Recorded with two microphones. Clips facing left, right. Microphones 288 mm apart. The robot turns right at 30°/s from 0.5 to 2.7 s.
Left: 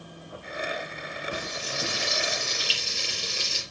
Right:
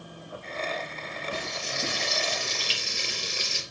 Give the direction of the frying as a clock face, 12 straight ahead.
8 o'clock.